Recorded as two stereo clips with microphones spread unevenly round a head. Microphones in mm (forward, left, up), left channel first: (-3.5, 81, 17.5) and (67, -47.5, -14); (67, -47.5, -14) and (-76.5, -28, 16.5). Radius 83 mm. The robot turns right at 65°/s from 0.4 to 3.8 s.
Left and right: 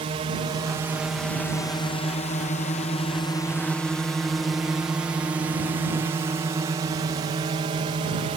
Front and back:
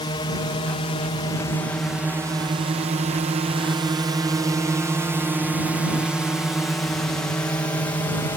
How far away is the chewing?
I don't hear chewing.